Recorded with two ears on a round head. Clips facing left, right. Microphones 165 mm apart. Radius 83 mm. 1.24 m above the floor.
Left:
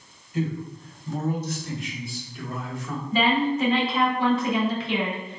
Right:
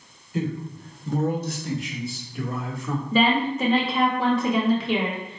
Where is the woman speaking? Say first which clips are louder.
Right 1 dB; 75° right (ahead or behind), 2.0 m.